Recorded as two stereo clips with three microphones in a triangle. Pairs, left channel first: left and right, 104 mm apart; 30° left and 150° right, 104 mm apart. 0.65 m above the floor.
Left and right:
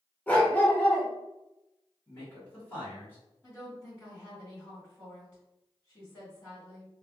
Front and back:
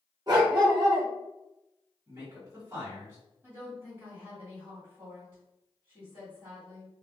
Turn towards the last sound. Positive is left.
turn(degrees=155)